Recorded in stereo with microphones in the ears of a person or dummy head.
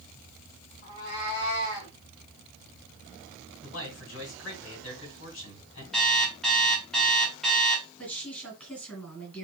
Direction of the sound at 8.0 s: 5° left (ahead or behind).